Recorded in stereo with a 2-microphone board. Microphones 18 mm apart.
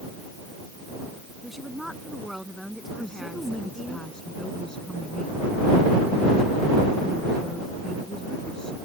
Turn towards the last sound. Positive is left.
turn(degrees=50)  # may be behind; listen again after turning